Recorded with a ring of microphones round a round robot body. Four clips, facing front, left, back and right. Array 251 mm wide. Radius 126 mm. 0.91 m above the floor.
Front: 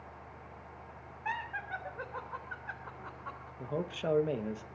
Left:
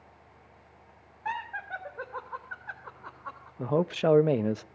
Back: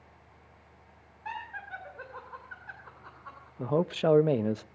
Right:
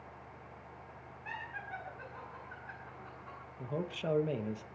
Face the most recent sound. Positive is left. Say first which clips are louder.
# left 12 dB, back 9 dB
turn(degrees=125)